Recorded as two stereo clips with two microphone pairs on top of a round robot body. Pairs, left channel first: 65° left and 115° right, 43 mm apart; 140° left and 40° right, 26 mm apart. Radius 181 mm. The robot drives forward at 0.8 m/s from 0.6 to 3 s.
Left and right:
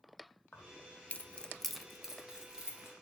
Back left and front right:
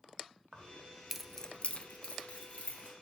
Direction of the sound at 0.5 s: 15° left.